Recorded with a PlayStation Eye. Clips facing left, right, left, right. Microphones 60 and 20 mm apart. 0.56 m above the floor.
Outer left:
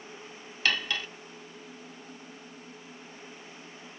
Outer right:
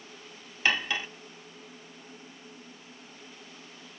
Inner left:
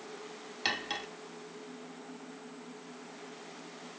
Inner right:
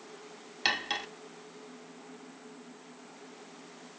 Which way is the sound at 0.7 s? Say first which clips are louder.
Outer right 2 dB, inner right 4 dB; 20° right (ahead or behind).